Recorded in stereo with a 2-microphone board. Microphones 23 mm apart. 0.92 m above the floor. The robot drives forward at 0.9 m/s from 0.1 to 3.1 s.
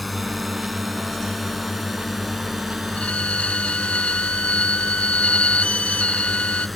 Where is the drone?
Centre (ahead or behind).